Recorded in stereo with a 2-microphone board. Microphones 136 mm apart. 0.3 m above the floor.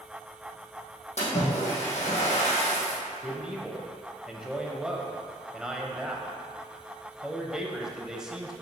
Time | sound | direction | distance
1.2 | a splash | 55° left (ahead or behind) | 2.5 m
3.2 | a man speaking | 5° right (ahead or behind) | 1.1 m